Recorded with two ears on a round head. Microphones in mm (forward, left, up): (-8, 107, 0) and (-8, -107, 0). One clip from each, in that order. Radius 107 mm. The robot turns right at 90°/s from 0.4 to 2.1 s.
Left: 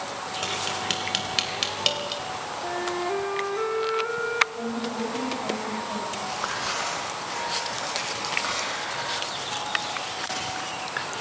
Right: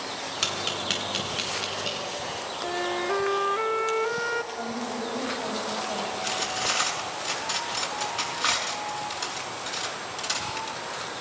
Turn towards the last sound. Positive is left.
turn(degrees=-75)  # may be behind; listen again after turning